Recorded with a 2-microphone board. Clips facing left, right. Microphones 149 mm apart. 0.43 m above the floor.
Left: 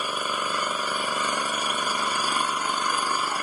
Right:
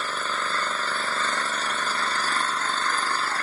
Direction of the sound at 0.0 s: 10° left (ahead or behind).